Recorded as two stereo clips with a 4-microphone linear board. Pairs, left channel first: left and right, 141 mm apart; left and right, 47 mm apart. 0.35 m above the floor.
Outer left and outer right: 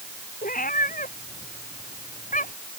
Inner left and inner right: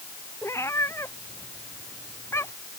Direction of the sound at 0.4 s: 75° left (ahead or behind).